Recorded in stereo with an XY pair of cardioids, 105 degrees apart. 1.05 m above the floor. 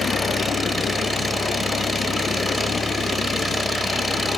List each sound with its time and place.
0.0 s an engine running: 20° right